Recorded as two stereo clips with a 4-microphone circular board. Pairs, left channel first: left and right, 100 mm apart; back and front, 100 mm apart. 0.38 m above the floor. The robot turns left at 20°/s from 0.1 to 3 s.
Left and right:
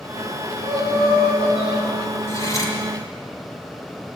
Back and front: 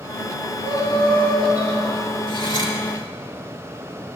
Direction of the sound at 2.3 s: 150° left.